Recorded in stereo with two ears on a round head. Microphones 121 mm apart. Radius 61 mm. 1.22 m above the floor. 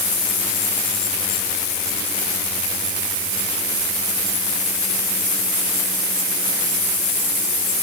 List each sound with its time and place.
Only background noise.